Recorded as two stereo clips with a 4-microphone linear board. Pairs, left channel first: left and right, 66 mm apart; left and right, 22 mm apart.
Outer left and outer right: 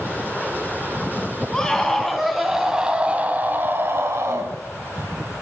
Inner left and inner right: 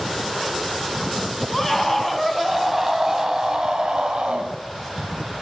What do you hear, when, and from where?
1.5 s a scream: 10° left (ahead or behind), 3 m; by 4.5 s 50° right (ahead or behind), 3 m